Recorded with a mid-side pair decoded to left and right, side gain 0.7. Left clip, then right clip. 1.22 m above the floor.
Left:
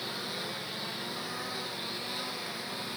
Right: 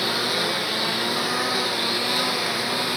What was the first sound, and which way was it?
A lawn mower, 50° right.